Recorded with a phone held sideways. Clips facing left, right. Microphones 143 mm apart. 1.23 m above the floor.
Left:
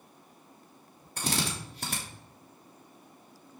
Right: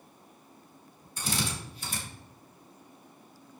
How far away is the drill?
About 3 m.